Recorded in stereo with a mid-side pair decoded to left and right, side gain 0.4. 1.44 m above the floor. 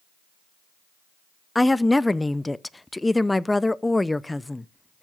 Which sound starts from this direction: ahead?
A woman speaking, at 1.6 s.